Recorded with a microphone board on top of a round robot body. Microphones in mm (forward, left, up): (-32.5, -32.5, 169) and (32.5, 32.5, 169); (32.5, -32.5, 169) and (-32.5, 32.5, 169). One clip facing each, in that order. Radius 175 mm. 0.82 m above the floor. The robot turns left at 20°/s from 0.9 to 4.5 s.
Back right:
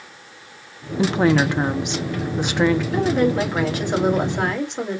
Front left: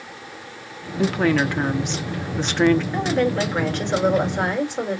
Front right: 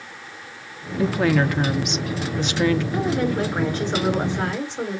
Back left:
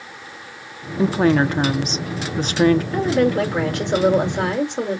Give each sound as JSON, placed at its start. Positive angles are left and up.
{"t": 1.0, "sound": "a woman speaking", "azimuth_deg": 180, "distance_m": 1.0}
{"t": 2.9, "sound": "a woman speaking", "azimuth_deg": 160, "distance_m": 2.5}